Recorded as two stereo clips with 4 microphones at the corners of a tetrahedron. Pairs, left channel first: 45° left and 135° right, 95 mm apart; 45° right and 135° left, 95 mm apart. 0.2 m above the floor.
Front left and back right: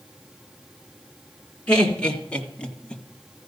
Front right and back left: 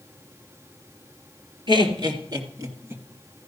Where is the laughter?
120° left, 2.5 m; by 3.0 s 110° left, 1.2 m.